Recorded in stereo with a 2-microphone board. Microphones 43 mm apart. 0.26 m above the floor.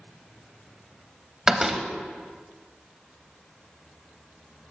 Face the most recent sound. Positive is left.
turn(degrees=-15)  # may be behind; listen again after turning